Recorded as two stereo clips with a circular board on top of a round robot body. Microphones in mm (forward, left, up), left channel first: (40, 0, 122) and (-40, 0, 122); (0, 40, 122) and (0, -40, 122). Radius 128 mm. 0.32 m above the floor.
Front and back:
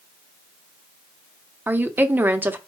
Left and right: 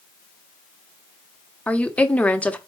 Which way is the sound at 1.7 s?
145° left.